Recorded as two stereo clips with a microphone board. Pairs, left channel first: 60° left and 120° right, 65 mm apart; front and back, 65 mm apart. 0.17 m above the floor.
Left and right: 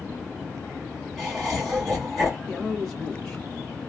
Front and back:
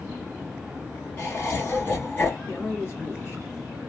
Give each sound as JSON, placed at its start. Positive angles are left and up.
{"t": 1.2, "sound": "laughter", "azimuth_deg": -20, "distance_m": 1.3}
{"t": 2.5, "sound": "a man speaking", "azimuth_deg": -15, "distance_m": 1.6}